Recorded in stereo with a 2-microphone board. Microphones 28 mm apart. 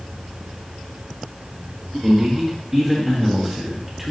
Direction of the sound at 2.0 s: 15° right (ahead or behind).